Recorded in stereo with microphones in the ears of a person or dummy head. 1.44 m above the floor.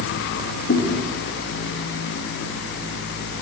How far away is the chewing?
About 1.2 m.